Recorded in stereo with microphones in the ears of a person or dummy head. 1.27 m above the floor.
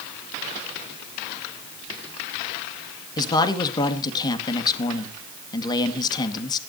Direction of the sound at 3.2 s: 20° left (ahead or behind).